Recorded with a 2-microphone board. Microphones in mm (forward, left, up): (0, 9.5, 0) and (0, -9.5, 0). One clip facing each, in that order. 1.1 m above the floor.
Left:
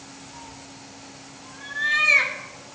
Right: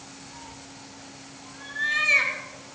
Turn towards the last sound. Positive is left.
turn(degrees=5)  # may be behind; listen again after turning